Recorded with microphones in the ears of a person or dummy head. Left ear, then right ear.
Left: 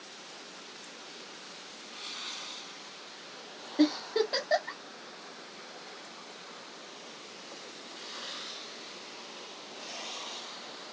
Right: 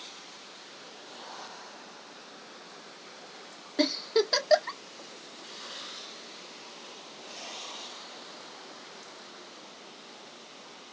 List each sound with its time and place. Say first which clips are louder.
3.8 s a giggle: right 1 dB; 50° right (ahead or behind), 1.3 m